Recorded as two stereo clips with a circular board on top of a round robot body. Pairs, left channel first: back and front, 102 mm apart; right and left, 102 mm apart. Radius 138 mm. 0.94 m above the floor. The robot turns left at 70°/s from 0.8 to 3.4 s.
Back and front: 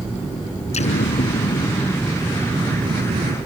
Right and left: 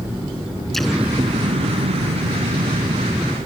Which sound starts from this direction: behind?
An explosion, at 0.7 s.